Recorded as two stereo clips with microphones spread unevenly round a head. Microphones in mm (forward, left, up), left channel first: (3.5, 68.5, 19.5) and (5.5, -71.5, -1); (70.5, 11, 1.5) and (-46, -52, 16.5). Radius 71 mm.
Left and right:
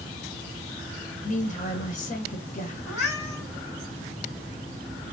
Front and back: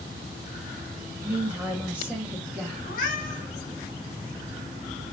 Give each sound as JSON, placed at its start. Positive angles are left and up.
{"t": 1.2, "sound": "a woman speaking", "azimuth_deg": 130, "distance_m": 1.3}
{"t": 2.9, "sound": "a cat meowing", "azimuth_deg": 60, "distance_m": 2.5}